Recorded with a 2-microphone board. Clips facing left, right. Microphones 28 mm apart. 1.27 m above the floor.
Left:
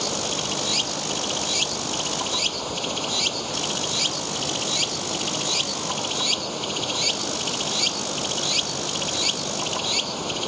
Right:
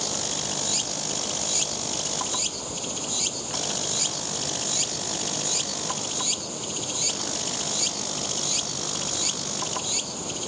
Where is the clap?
I don't hear a clap.